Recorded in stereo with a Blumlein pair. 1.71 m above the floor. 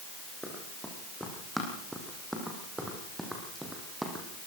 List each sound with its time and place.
0.4 s running footsteps: straight ahead, 6.5 m